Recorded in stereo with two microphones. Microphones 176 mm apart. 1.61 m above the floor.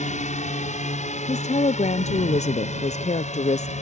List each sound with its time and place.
0.0 s a drone: 40° left (ahead or behind)
1.3 s a woman speaking: 40° left (ahead or behind)